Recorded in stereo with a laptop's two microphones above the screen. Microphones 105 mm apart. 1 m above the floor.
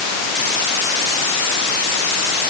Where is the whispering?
I don't hear whispering.